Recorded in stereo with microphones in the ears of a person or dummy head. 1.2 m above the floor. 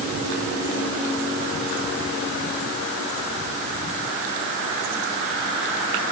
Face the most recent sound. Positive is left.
No sound to turn to.